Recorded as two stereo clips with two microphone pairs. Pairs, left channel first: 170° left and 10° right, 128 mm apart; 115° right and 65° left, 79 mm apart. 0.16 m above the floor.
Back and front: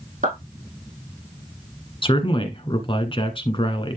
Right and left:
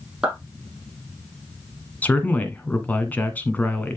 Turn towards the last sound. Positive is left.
turn(degrees=-175)